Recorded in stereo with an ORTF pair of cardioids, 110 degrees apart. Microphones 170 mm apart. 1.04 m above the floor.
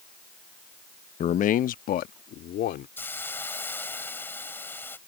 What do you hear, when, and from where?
1.2 s a man speaking: 40° left; by 2.9 s 65° left
3.0 s a hiss: 15° left